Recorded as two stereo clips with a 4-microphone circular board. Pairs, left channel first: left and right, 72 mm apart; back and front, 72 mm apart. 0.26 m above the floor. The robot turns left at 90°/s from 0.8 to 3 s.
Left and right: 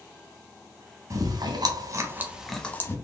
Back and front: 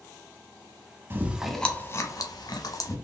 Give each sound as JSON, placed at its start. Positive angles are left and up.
{"t": 1.1, "sound": "chewing", "azimuth_deg": -55, "distance_m": 0.6}